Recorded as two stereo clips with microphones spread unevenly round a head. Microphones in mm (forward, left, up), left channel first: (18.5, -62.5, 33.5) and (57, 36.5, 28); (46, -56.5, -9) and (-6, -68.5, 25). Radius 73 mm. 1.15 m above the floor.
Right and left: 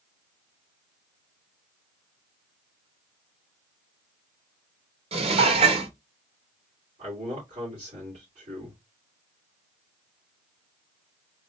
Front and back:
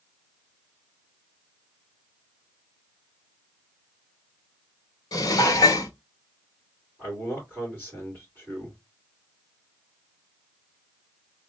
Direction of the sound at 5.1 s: 35° left.